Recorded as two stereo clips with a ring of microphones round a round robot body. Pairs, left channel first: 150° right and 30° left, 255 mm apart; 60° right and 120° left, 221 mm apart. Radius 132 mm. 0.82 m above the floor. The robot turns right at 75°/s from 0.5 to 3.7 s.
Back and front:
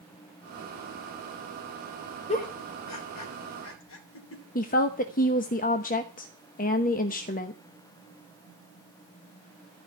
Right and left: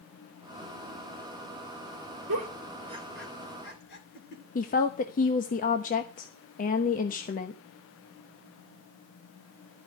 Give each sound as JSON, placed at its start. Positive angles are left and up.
{"t": 2.3, "sound": "a giggle", "azimuth_deg": 145, "distance_m": 3.5}
{"t": 4.5, "sound": "a woman speaking", "azimuth_deg": -100, "distance_m": 1.1}